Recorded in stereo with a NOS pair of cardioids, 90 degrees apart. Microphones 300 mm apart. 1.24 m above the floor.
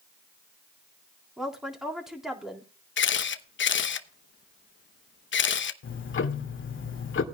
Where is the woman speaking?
Straight ahead, 3.5 m.